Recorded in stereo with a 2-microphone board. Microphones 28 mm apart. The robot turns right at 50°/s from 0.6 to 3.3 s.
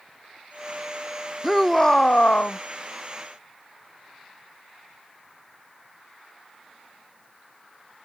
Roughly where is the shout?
Ahead.